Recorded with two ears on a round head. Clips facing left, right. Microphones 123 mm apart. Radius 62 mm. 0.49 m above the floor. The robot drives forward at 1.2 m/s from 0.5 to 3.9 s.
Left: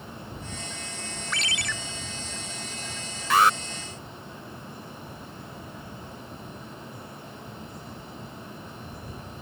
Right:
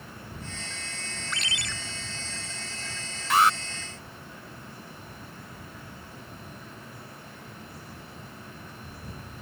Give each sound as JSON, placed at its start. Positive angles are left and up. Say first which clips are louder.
{"t": 1.3, "sound": "a ringtone", "louder": "left 3 dB", "side_deg": 60}
{"t": 3.3, "sound": "an alarm", "louder": "left 1 dB", "side_deg": 65}